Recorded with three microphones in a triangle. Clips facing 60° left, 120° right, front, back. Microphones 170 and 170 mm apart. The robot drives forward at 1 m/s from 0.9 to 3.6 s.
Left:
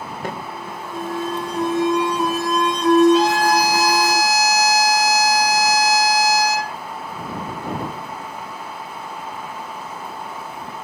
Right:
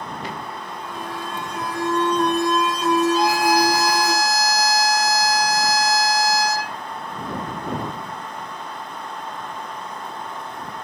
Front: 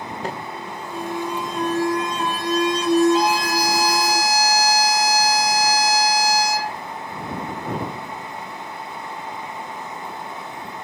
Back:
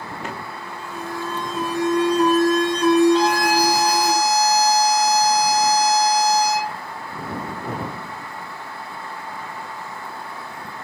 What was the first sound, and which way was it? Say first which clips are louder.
An alarm: left 3 dB, front 2 dB; 40° left.